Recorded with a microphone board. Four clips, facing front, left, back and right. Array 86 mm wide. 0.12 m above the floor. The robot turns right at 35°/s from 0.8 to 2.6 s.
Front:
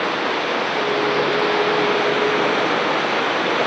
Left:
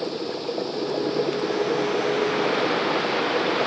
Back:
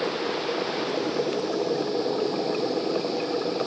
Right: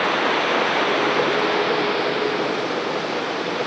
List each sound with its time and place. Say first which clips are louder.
0.0 s running water: right 8 dB, front 6 dB; 60° right; by 3.7 s 5° left